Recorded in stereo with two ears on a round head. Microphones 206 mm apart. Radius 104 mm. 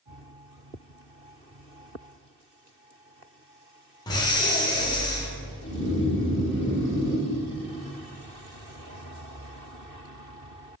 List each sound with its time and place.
4.1 s breathing: 15° left (ahead or behind), 0.5 m
5.6 s snoring: 40° left (ahead or behind), 1.1 m